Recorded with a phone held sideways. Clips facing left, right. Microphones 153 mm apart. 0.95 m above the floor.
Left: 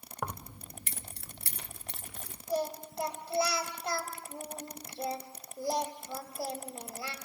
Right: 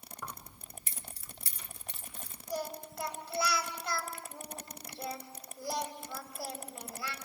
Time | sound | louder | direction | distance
0.2 | keys jangling | left 8 dB | 60° left (ahead or behind) | 0.7 m
2.5 | singing | left 5 dB | 25° left (ahead or behind) | 2.5 m